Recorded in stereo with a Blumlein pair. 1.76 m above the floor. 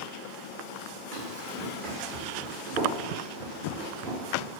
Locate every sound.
1.1 s running footsteps: 45° right, 6 m; by 4.5 s 50° right, 8 m